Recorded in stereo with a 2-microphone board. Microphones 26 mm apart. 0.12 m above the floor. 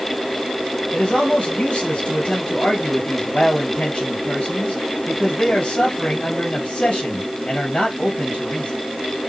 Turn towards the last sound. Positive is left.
turn(degrees=45)  # may be behind; listen again after turning